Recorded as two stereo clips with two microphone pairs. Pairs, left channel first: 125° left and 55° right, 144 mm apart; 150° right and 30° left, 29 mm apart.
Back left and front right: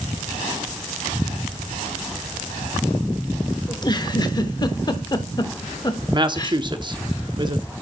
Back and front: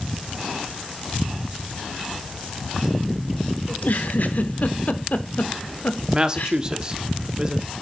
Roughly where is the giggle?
Behind.